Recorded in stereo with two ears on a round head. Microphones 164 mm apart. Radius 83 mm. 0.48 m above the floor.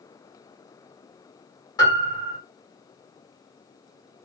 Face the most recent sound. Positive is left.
turn(degrees=20)  # may be behind; listen again after turning